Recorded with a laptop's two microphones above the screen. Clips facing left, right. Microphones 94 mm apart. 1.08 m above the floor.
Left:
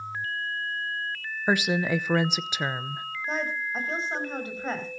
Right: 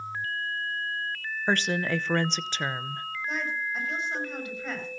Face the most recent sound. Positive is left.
turn(degrees=35)  # may be behind; listen again after turning